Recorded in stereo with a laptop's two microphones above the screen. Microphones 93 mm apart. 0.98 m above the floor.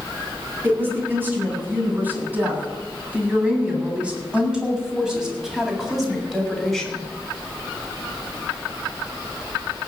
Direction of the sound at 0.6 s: 25° right (ahead or behind).